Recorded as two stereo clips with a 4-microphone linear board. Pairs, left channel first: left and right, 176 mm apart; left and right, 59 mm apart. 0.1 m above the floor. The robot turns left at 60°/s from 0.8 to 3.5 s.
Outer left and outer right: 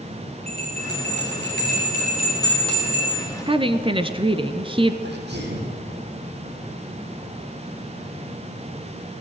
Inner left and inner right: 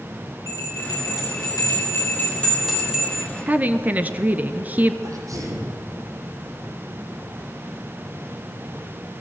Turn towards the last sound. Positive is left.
turn(degrees=-75)  # may be behind; listen again after turning